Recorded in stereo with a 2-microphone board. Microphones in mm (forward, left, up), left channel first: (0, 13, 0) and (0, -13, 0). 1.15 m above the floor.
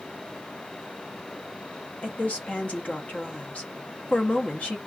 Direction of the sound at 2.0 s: 60° left (ahead or behind).